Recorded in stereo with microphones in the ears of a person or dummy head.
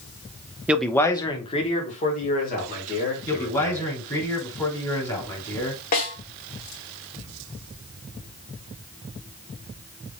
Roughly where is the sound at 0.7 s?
Centre.